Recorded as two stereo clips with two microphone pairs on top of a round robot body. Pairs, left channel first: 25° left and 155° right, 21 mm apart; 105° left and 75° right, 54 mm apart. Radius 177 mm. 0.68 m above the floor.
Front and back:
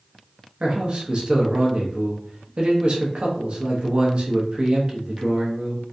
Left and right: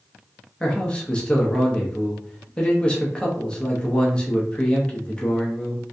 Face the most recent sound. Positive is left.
turn(degrees=175)